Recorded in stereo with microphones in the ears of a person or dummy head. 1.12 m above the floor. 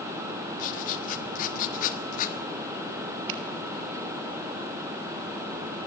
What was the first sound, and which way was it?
Writing, 45° left (ahead or behind).